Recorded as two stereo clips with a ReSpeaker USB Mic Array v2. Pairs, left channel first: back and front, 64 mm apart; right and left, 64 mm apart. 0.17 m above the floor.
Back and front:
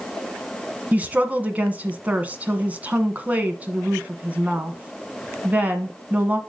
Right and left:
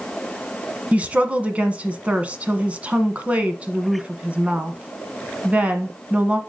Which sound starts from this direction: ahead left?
A woman speaking, at 0.9 s.